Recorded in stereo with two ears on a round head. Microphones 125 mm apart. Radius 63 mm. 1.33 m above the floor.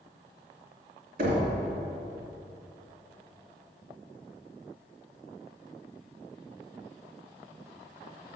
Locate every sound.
1.2 s knocking: 65° right (ahead or behind), 2.5 m